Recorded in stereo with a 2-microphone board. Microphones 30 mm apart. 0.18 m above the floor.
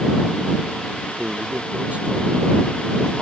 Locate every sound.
1.2 s a man speaking: 55° right (ahead or behind)